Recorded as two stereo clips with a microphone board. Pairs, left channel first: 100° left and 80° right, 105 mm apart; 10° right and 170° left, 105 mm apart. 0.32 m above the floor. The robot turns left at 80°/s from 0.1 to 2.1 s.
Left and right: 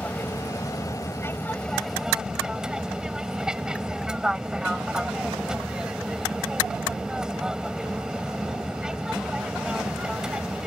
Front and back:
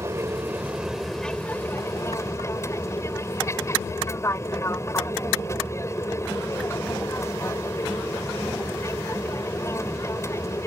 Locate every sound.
0.0 s an aircraft: 155° left; by 10.7 s 5° right